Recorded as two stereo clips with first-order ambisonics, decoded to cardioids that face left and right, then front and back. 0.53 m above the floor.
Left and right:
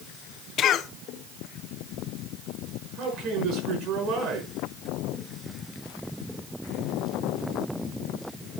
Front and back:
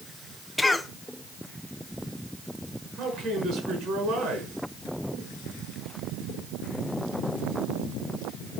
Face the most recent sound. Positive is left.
turn(degrees=-130)